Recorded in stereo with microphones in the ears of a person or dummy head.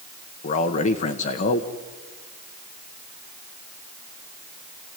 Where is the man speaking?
35° left (ahead or behind), 1.1 m.